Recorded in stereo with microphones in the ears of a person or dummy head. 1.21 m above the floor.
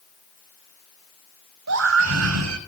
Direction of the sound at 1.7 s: 75° right (ahead or behind).